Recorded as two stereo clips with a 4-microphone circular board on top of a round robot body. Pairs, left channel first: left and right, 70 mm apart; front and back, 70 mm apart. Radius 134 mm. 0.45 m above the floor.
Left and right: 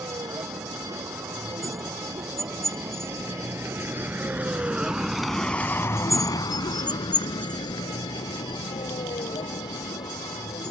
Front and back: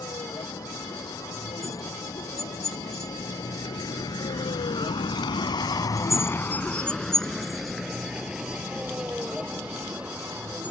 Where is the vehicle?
50° right; by 10.7 s 110° left.